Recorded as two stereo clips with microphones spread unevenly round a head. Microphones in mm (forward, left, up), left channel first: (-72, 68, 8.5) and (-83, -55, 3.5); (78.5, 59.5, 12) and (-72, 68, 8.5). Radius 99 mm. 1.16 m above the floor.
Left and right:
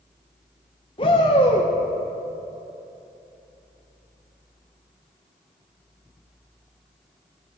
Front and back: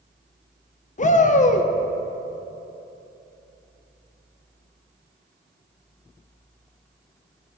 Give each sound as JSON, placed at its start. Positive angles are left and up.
{"t": 1.0, "sound": "a shout", "azimuth_deg": 30, "distance_m": 0.9}